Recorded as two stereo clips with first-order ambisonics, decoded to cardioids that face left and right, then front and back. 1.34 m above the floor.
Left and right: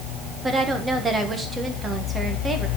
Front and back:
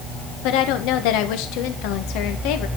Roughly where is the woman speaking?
Ahead.